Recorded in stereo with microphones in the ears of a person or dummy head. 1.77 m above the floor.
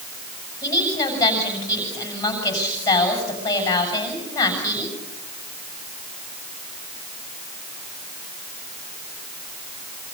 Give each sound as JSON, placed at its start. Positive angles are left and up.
{"t": 0.6, "sound": "a woman speaking", "side_deg": 15, "distance_m": 7.5}